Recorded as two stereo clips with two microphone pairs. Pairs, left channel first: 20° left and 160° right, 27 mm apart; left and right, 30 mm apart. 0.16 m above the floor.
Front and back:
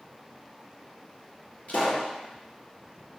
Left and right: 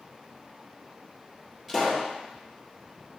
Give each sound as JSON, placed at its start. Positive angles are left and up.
{"t": 1.7, "sound": "a pop", "azimuth_deg": -15, "distance_m": 3.0}